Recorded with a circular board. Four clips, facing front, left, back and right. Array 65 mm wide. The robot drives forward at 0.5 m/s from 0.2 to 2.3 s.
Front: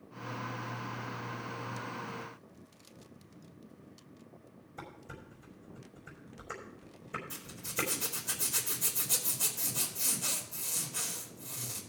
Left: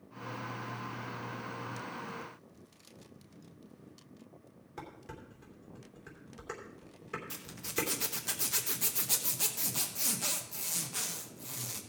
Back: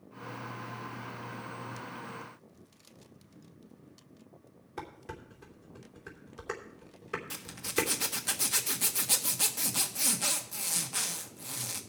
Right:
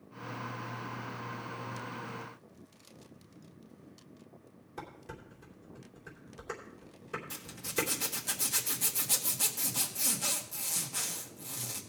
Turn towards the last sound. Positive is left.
turn(degrees=170)